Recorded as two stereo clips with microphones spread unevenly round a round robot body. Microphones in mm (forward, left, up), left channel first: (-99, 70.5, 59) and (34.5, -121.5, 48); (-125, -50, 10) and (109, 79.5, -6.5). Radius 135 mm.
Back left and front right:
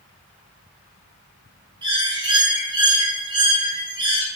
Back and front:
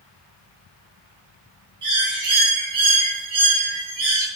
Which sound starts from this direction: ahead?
A bird, at 1.8 s.